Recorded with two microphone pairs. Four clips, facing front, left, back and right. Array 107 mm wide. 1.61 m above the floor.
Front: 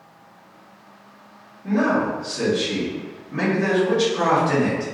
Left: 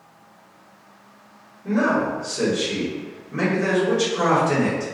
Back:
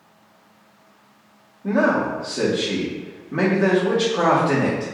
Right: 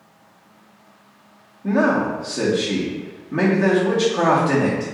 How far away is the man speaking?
About 1.7 m.